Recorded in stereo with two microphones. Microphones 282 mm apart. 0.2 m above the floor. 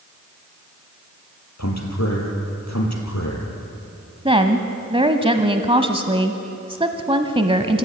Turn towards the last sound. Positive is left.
turn(degrees=-20)  # may be behind; listen again after turning